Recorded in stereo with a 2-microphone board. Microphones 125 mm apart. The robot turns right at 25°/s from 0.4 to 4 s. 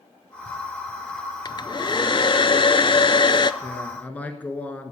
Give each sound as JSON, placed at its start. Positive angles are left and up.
{"t": 1.4, "sound": "a hair dryer", "azimuth_deg": 60, "distance_m": 0.5}
{"t": 3.6, "sound": "a man speaking", "side_deg": 15, "distance_m": 1.5}